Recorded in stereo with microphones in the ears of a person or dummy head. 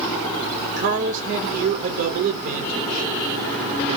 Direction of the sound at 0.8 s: 60° right (ahead or behind).